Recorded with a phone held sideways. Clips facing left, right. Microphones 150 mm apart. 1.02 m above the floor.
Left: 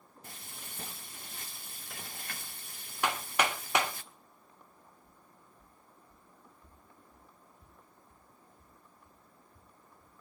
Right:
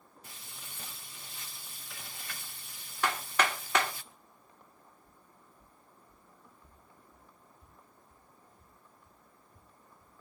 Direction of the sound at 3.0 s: 15° left (ahead or behind).